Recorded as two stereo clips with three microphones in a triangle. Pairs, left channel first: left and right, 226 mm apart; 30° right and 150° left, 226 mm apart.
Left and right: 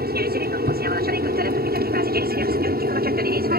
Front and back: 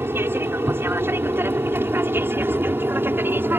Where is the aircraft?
130° right.